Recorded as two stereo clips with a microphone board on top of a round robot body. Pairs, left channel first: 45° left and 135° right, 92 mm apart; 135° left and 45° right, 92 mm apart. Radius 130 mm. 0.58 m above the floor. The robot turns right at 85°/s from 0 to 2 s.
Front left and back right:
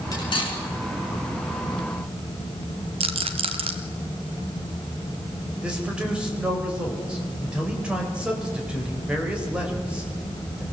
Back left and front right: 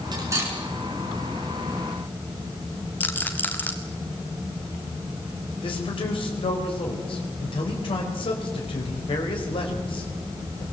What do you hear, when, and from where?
0.1 s cutlery clinking: 5° right, 5 m; by 0.6 s 35° left, 5 m
3.0 s a rattle: 155° right, 0.7 m
5.6 s a man speaking: 145° left, 4 m